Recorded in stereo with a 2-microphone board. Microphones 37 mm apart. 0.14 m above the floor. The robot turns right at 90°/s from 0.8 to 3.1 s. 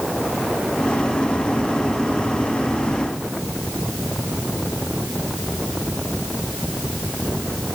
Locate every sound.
Only background noise.